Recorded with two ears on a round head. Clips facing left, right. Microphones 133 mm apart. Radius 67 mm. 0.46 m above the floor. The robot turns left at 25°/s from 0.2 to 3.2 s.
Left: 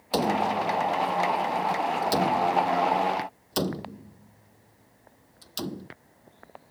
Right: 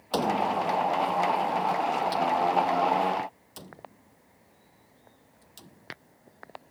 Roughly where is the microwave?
No microwave in this recording.